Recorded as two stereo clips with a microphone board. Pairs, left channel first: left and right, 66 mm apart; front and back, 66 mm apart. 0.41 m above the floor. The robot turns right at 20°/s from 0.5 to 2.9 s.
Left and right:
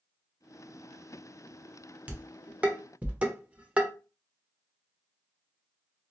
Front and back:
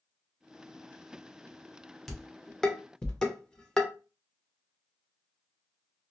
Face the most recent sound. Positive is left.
turn(degrees=-60)